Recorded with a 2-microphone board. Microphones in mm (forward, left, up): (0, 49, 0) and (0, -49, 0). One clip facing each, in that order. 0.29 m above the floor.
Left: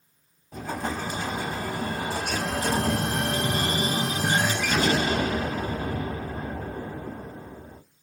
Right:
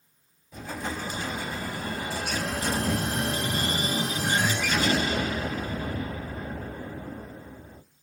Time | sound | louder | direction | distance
0.5 | an explosion | left 3 dB | 45° left (ahead or behind) | 0.6 m